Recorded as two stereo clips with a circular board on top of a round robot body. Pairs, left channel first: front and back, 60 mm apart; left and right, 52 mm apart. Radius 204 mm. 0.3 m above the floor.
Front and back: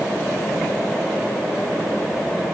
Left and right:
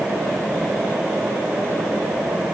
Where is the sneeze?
No sneeze in this recording.